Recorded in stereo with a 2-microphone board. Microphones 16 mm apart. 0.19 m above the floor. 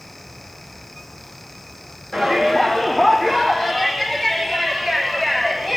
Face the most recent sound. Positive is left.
turn(degrees=40)  # may be behind; listen again after turning